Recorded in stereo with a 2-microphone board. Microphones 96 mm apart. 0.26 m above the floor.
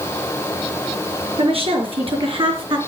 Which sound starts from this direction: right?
A woman speaking, at 1.4 s.